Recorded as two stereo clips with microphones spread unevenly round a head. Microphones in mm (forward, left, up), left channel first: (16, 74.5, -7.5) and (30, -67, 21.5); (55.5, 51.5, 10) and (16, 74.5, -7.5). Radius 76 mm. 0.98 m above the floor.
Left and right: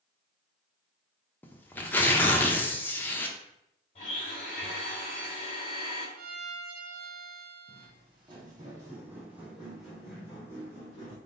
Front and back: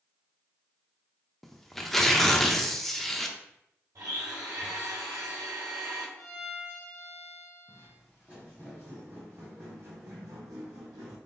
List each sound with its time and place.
1.4 s tearing paper: 10° left, 0.5 m
4.0 s a blender: 150° left, 1.9 m
6.2 s a violin: 80° right, 0.6 m
7.7 s footsteps: 105° right, 1.5 m; by 11.2 s 170° left, 1.9 m